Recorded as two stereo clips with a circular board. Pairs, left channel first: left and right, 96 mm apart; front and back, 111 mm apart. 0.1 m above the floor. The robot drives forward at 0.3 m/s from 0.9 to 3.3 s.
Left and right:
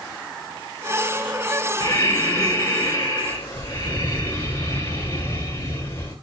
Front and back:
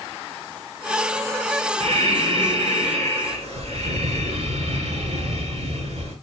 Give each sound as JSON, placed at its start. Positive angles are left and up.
{"t": 1.8, "sound": "breathing", "azimuth_deg": 150, "distance_m": 6.5}